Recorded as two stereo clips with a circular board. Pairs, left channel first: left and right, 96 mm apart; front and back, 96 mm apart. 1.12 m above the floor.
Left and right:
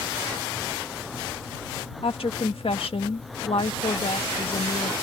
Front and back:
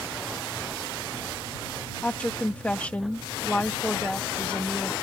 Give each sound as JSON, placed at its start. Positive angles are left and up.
{"t": 2.0, "sound": "a woman speaking", "azimuth_deg": 75}